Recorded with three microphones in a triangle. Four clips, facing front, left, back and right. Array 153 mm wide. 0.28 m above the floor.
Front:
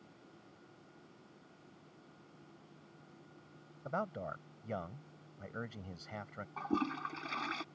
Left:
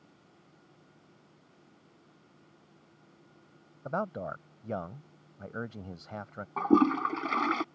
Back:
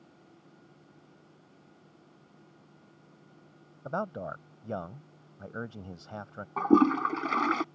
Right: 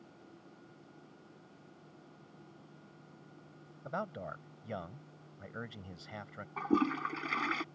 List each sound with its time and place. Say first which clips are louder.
3.9 s a man speaking: left 6 dB, back 5 dB; 135° left
6.6 s a toilet flushing: left 7 dB, back 14 dB; 150° left